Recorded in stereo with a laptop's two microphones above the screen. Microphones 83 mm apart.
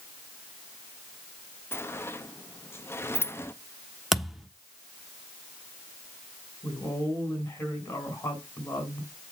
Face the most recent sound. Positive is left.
turn(degrees=35)  # may be behind; listen again after turning